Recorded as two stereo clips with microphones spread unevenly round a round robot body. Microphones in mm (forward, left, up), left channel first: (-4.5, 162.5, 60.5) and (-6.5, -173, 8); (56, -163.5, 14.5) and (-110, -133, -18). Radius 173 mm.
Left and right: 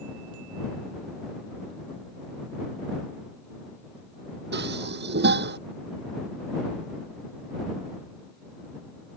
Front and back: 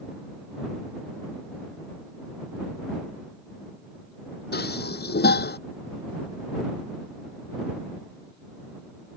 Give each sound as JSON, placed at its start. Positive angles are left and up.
{"t": 4.5, "sound": "dishes clattering", "azimuth_deg": -30}